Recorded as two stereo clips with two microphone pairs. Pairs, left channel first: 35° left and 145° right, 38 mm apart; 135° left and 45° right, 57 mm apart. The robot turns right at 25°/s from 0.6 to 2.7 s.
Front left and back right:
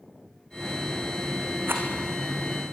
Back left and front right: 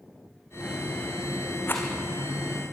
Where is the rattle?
170° right, 3.5 m; by 1.9 s 165° right, 3.5 m.